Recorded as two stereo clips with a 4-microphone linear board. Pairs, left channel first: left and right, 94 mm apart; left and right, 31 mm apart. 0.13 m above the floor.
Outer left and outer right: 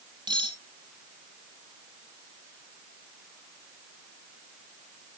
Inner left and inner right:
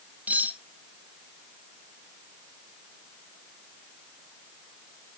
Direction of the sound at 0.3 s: 60° right (ahead or behind).